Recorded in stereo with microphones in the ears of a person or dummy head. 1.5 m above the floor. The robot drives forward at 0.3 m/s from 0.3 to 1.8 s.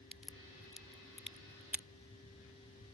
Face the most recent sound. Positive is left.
turn(degrees=-5)  # may be behind; listen again after turning